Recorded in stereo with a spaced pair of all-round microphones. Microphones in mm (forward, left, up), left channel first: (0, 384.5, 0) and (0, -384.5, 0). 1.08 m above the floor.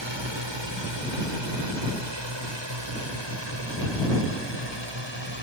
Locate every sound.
0.0 s a drone: 35° right (ahead or behind); by 5.4 s 30° right (ahead or behind)